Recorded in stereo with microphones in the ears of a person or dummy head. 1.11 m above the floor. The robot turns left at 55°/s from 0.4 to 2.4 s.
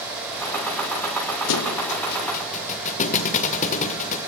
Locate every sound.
1.5 s a thud: 80° left, 2.0 m; by 4.2 s 45° left (ahead or behind), 2.0 m